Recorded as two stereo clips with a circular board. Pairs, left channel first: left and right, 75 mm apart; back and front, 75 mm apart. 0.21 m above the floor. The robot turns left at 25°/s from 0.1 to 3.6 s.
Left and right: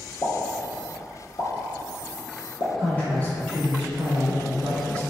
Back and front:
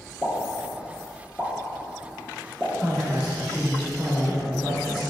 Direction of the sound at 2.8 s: 95° left.